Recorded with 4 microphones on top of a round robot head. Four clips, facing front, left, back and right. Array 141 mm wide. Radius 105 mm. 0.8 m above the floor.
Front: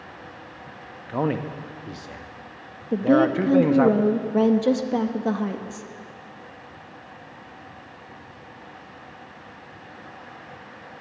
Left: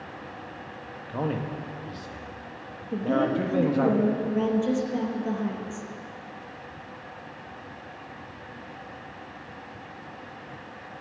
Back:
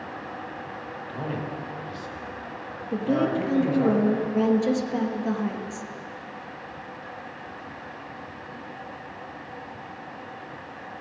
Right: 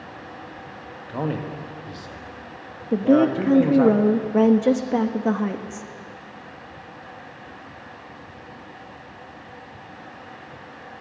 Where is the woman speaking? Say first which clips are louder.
Right 8 dB, front 5 dB; 65° right, 1.0 m.